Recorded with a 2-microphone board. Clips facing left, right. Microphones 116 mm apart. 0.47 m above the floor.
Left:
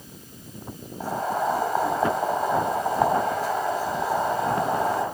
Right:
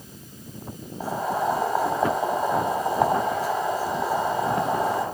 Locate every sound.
1.0 s boiling: 5° right (ahead or behind), 2.5 m